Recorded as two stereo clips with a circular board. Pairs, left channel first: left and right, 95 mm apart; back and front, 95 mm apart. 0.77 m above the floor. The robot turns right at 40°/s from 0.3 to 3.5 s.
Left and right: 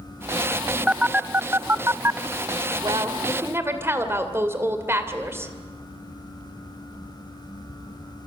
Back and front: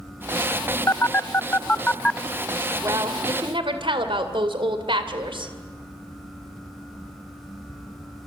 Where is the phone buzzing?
160° right, 0.6 m; by 2.2 s 105° right, 0.6 m.